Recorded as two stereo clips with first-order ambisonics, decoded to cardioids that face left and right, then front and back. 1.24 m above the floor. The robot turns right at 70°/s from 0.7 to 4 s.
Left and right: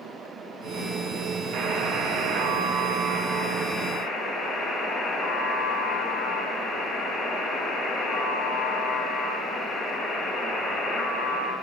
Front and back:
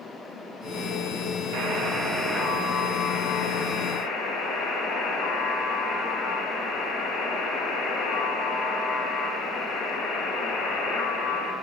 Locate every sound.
1.5 s a buzzer: 150° right, 1.5 m; by 11.5 s 25° left, 1.5 m